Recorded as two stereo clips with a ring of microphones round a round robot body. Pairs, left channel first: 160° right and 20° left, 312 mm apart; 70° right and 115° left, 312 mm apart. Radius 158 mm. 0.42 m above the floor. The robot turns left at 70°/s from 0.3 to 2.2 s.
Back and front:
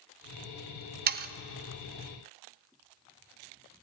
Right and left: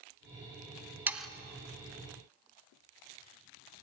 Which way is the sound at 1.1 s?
35° left.